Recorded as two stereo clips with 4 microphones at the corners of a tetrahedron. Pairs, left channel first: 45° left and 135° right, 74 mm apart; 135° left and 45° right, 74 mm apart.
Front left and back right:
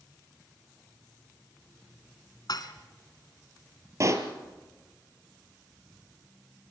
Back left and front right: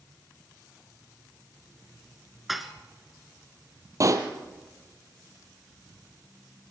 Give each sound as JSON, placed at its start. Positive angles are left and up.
{"t": 2.5, "sound": "dishes clattering", "azimuth_deg": 45, "distance_m": 1.6}
{"t": 4.0, "sound": "a pop", "azimuth_deg": -85, "distance_m": 1.9}